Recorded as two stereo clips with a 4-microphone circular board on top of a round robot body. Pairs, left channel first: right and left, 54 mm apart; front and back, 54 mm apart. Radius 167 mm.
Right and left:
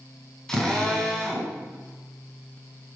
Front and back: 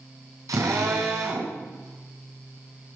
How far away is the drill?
About 4.5 m.